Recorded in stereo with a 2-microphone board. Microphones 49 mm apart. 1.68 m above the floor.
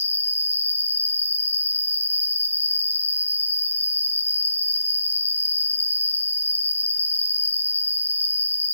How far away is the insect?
About 2.5 m.